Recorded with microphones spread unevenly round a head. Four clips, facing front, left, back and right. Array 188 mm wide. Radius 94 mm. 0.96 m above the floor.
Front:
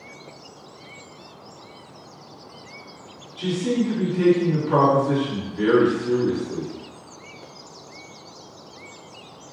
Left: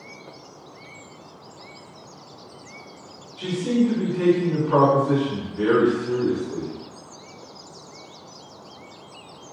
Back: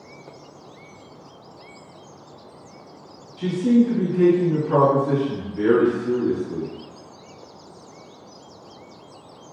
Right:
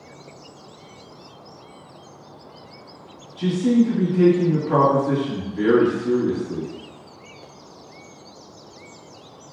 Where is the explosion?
No explosion in this recording.